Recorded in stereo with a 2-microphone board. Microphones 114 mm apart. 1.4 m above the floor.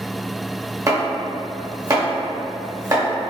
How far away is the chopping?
About 0.8 m.